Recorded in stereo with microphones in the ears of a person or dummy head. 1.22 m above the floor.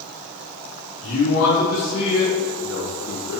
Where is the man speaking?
65° left (ahead or behind), 3 m; by 3.4 s 75° left (ahead or behind), 1.7 m.